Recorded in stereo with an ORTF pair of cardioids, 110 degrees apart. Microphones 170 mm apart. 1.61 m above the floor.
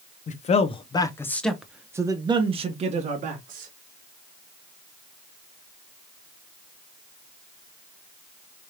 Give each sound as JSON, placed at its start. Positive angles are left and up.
{"t": 0.3, "sound": "a man speaking", "azimuth_deg": 45, "distance_m": 1.0}